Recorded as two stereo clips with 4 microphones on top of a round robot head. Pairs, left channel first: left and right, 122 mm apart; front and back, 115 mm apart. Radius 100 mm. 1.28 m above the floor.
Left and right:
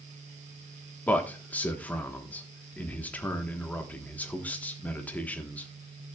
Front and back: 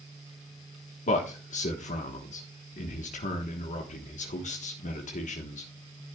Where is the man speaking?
10° left, 1.2 m.